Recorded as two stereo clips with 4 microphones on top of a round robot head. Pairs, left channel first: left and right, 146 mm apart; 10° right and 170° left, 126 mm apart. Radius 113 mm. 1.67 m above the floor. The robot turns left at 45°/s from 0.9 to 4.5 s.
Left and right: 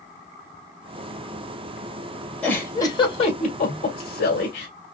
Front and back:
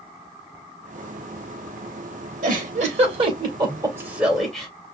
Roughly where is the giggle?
Behind.